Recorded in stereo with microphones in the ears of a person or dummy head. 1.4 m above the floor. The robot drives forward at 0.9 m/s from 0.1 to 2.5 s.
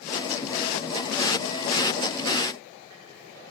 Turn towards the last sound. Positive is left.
No sound to turn to.